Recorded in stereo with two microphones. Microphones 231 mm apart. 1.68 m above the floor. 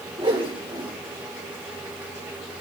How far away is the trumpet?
I don't hear a trumpet.